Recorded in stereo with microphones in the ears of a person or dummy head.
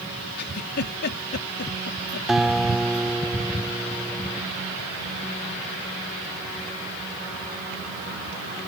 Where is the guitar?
Centre (ahead or behind).